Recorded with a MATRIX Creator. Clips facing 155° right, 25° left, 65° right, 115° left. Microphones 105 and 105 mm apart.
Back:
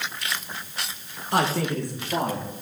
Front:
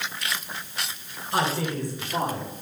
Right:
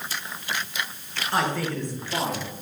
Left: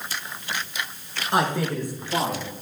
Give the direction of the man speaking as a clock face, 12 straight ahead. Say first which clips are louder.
Back 2 dB, left 3 dB; 6 o'clock.